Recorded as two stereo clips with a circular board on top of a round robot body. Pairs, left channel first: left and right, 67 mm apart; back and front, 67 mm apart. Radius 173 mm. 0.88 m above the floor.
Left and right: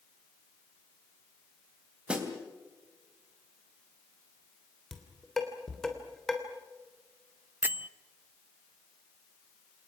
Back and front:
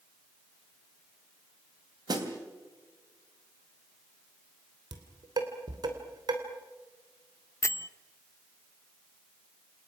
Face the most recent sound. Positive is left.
turn(degrees=-145)